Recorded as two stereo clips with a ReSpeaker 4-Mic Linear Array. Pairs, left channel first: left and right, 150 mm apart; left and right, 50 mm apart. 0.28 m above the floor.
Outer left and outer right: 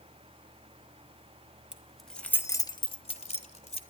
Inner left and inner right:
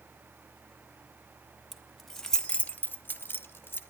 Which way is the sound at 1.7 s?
5° right (ahead or behind).